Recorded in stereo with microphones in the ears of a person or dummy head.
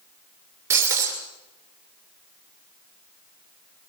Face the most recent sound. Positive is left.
turn(degrees=-15)  # may be behind; listen again after turning